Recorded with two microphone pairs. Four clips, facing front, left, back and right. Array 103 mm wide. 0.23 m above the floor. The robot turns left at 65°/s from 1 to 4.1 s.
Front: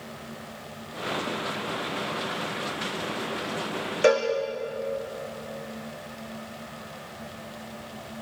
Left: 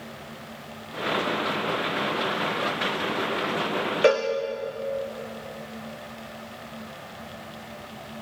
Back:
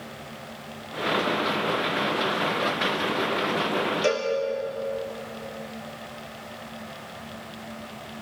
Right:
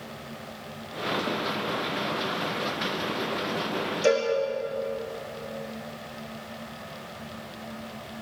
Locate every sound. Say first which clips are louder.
4.0 s a cowbell: left 2 dB, front 7 dB; 55° left, 4 m